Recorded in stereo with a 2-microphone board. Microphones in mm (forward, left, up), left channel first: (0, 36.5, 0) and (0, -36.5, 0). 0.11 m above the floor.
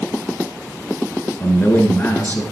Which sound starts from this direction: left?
A man speaking, at 1.4 s.